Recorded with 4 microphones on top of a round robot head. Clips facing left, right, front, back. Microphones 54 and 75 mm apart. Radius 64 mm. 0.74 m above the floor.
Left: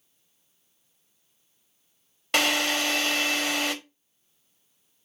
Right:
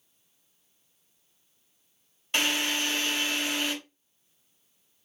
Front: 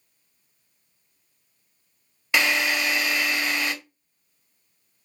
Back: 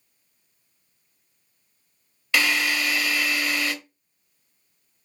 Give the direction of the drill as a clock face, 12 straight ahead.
10 o'clock.